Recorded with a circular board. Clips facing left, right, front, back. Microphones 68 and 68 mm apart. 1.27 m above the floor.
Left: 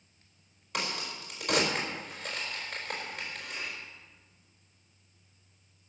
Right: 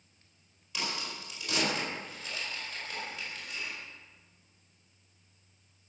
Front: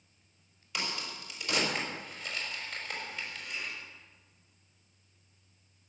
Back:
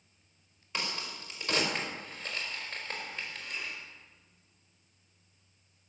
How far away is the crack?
About 4.5 m.